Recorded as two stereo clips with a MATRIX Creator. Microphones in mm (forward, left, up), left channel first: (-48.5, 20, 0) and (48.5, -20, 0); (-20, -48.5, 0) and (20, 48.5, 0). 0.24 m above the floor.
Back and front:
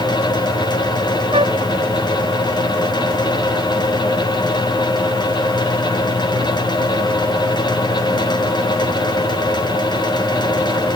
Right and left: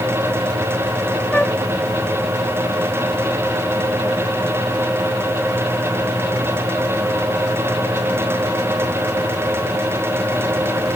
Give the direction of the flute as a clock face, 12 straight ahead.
1 o'clock.